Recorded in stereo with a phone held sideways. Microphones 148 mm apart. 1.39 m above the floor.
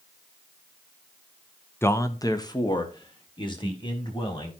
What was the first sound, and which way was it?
A man speaking, 15° left (ahead or behind).